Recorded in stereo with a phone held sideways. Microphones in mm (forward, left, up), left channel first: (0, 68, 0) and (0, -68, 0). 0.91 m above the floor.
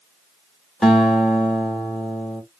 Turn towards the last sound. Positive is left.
turn(degrees=0)  # may be behind; listen again after turning